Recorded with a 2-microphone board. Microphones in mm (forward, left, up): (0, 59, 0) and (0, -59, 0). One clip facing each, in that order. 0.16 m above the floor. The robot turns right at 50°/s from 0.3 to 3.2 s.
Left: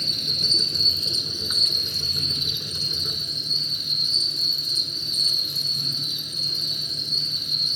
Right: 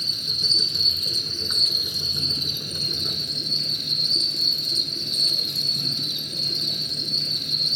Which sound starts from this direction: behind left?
An insect, at 0.0 s.